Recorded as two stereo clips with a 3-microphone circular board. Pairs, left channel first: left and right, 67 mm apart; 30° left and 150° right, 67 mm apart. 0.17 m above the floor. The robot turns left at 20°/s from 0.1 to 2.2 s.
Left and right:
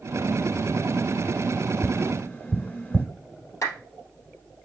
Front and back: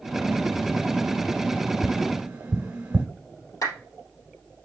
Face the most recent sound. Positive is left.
turn(degrees=50)